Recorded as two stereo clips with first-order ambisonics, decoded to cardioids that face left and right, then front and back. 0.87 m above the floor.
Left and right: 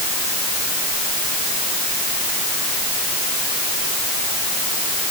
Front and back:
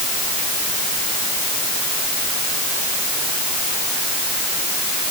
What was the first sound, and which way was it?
Only background noise.